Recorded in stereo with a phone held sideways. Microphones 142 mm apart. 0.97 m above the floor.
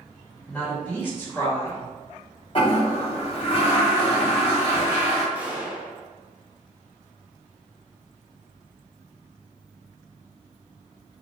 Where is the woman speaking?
10° left (ahead or behind), 1.6 m; by 1.8 s 20° left (ahead or behind), 1.0 m.